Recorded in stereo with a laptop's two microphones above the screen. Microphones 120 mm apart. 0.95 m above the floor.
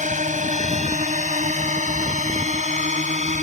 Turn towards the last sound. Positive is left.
turn(degrees=-75)  # may be behind; listen again after turning